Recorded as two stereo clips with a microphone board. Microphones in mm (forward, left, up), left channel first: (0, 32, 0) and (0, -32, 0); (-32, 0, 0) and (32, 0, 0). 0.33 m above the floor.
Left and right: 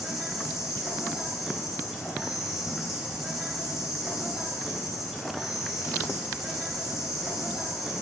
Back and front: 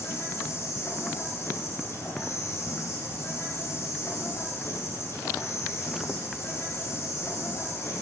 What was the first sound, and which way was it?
An insect, 175° right.